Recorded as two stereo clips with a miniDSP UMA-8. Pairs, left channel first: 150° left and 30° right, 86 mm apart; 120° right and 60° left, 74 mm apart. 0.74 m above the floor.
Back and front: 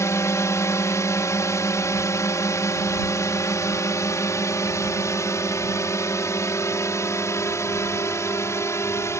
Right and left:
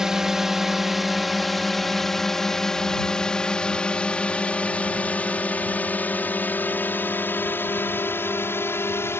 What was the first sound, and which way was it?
A drone, 140° left.